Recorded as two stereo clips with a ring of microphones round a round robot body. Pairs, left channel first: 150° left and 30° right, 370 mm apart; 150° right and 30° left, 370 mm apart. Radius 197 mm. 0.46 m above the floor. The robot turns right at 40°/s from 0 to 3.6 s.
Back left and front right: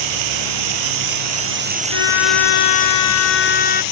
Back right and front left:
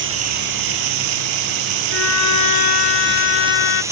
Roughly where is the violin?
Behind left.